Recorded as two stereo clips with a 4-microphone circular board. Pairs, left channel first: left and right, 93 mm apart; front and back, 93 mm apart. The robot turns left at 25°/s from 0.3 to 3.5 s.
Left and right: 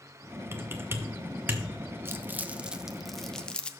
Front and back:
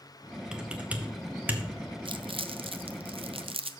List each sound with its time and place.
0.5 s typing on a keyboard: 105° right, 0.9 m; by 1.6 s 135° right, 0.9 m
2.0 s crumpling: 155° right, 0.5 m; by 3.7 s 170° left, 0.5 m